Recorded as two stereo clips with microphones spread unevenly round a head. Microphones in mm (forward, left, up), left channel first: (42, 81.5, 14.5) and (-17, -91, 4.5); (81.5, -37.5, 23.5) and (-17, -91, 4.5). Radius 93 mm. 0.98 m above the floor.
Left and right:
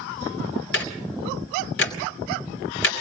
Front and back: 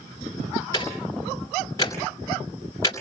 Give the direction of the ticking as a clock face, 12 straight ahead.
9 o'clock.